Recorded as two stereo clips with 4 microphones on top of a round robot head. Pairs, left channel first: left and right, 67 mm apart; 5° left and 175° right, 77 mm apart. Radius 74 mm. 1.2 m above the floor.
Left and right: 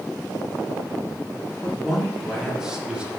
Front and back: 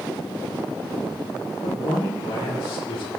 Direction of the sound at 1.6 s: 10° left.